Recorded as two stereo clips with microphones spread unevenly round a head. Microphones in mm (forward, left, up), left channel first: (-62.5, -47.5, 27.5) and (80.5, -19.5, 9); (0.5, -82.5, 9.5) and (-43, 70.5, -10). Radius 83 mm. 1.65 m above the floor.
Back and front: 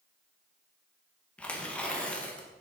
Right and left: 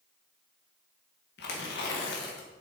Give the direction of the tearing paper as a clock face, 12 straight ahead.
3 o'clock.